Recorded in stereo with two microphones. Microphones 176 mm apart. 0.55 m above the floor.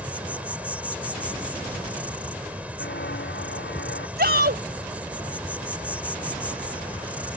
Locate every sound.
0.0 s an insect: 10° right (ahead or behind)
2.8 s footsteps: 85° left
4.2 s a shout: 65° right (ahead or behind)